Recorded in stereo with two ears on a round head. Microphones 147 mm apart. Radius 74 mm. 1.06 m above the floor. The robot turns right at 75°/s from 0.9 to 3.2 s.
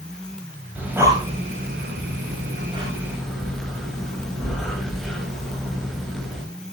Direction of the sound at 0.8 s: 10° right (ahead or behind).